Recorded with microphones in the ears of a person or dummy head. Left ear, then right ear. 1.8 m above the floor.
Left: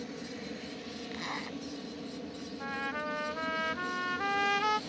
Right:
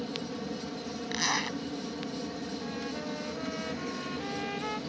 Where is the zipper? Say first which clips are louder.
Right 10 dB; 35° right (ahead or behind).